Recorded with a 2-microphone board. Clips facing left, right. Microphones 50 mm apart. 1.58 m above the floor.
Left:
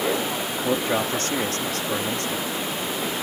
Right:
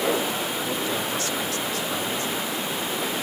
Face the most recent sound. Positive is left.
turn(degrees=65)  # may be behind; listen again after turning